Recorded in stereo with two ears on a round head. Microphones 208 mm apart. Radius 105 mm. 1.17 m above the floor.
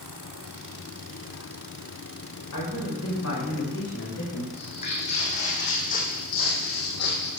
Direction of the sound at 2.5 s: 60° left (ahead or behind).